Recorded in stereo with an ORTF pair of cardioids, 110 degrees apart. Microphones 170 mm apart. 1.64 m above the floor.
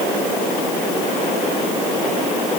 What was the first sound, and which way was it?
Only background noise.